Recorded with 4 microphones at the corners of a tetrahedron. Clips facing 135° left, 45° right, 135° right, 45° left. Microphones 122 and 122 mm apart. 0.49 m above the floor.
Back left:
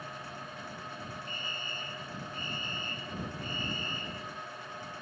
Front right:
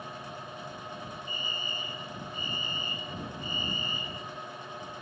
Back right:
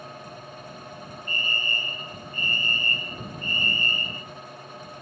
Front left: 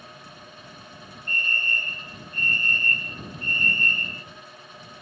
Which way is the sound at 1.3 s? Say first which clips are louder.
Front right 3 dB, front left 2 dB; 35° left.